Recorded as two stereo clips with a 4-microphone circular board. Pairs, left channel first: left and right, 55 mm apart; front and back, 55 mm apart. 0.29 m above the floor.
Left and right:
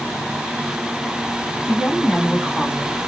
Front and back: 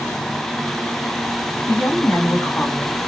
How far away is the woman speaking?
About 2 m.